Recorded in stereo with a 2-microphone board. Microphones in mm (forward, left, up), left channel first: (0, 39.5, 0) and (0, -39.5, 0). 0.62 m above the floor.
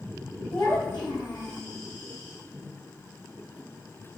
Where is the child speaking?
80° left, 1.5 m; by 1.6 s 60° left (ahead or behind), 1.1 m.